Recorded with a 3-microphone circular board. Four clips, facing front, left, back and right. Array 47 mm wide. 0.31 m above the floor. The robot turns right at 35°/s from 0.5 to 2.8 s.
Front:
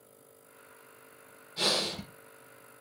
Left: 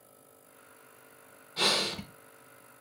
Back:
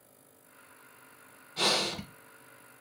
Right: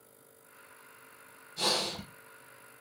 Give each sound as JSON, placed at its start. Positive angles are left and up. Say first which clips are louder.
{"t": 1.6, "sound": "breathing", "louder": "left 3 dB, back 2 dB", "azimuth_deg": 130, "distance_m": 1.2}